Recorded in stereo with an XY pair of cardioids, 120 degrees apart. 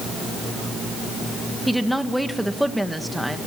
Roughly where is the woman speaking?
Ahead.